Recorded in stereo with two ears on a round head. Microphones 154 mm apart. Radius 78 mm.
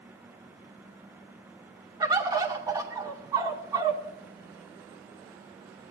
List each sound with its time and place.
2.0 s a bird: 20° right (ahead or behind), 2 m